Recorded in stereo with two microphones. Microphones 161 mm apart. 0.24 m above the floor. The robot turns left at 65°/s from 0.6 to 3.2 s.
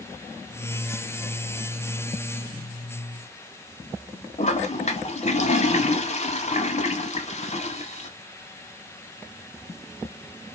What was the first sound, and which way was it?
A toilet flushing, 45° left (ahead or behind).